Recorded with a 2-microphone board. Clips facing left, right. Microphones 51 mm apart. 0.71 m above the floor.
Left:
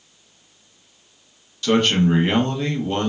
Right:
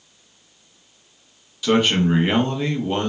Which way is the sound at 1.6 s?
5° right (ahead or behind).